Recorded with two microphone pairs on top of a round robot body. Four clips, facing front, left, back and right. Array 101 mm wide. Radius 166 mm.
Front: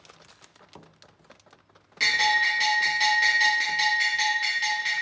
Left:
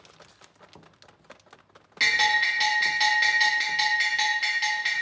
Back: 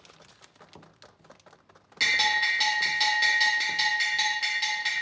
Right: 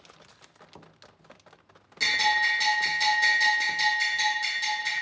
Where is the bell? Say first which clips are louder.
Left 1 dB, front 3 dB; 110° left, 1.5 m.